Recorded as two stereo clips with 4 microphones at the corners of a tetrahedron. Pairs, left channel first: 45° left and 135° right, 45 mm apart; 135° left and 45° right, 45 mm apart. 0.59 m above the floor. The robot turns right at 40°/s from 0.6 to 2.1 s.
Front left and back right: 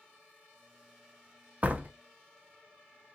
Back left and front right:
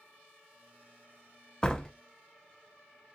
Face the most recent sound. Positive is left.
turn(degrees=-145)